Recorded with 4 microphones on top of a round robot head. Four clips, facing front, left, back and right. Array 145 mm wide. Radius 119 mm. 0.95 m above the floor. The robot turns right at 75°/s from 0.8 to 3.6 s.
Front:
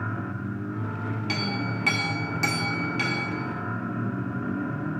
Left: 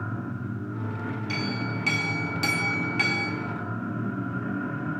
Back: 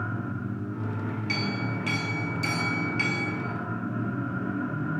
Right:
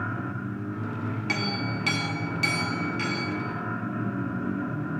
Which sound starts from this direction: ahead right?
A clink, at 1.3 s.